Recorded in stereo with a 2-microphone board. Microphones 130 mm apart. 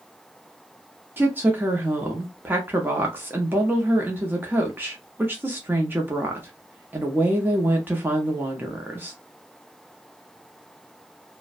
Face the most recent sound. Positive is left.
turn(degrees=-15)  # may be behind; listen again after turning